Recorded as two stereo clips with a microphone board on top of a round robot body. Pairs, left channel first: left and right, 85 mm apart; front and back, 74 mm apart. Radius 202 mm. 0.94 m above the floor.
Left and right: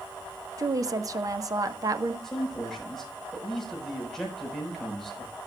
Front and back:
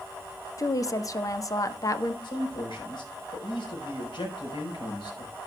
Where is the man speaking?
5° left, 4.5 m.